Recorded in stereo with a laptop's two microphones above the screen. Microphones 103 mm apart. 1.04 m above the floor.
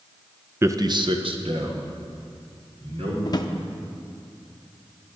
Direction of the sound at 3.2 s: 40° left (ahead or behind).